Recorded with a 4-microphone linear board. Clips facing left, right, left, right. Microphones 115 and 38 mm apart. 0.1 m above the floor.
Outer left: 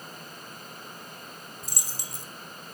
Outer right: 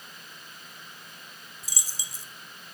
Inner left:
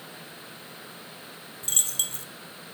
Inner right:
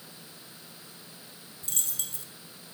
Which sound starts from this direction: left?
A dropped coin, at 1.6 s.